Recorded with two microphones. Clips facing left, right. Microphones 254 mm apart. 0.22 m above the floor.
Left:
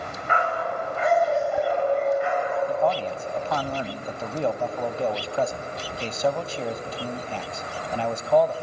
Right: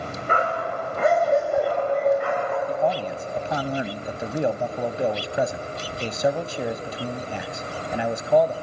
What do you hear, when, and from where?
0.3 s a dog barking: 45° right (ahead or behind), 7.5 m; by 2.6 s 60° right (ahead or behind), 7 m
2.7 s a man speaking: 15° right (ahead or behind), 1.0 m